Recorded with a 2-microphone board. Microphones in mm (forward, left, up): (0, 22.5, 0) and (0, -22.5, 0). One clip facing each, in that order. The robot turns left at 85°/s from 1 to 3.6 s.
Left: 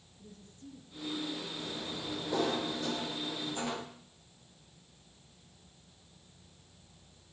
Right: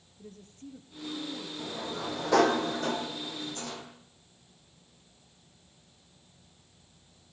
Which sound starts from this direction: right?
A woman speaking, at 0.2 s.